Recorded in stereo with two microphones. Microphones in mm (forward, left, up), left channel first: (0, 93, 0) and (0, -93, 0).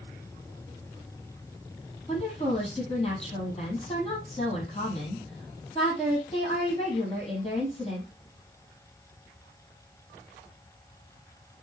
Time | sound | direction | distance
2.1 | a woman speaking | 30° left (ahead or behind) | 4 m